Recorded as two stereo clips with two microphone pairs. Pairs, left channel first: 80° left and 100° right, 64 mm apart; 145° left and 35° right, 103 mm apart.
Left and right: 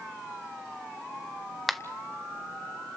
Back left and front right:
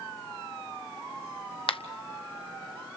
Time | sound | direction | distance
1.7 | a finger snap | 170° left | 0.8 m